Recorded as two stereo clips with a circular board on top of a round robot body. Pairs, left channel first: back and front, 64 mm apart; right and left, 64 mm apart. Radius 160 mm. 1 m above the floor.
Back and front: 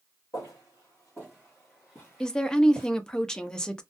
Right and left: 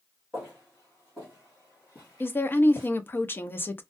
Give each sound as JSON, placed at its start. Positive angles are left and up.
{"t": 0.3, "sound": "footsteps", "azimuth_deg": 160, "distance_m": 1.0}
{"t": 2.2, "sound": "a woman speaking", "azimuth_deg": -110, "distance_m": 0.7}